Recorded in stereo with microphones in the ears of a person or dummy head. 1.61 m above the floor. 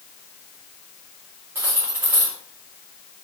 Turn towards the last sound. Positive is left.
turn(degrees=-10)  # may be behind; listen again after turning